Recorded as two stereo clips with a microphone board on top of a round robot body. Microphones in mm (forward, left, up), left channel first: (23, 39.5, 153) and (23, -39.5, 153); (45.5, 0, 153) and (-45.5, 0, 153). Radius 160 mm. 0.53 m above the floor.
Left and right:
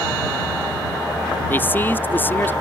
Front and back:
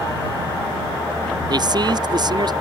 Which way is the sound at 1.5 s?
150° left.